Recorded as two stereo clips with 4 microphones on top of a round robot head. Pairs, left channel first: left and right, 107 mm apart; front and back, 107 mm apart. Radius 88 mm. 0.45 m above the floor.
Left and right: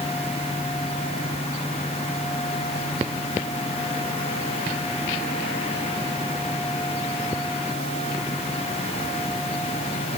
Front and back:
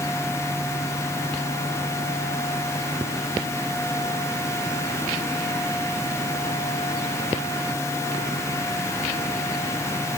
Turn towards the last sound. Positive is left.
No sound to turn to.